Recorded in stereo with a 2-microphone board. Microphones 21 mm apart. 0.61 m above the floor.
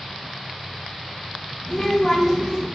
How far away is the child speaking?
About 1.4 m.